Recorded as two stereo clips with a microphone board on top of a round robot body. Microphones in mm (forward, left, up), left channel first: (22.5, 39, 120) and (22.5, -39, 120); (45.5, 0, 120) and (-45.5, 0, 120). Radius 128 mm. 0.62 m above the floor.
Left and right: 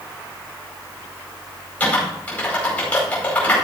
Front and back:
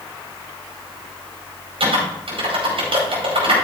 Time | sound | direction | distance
1.8 | typing on a keyboard | 160° left | 4.5 m